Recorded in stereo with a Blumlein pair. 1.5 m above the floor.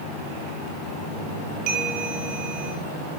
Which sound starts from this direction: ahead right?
A bell, at 1.7 s.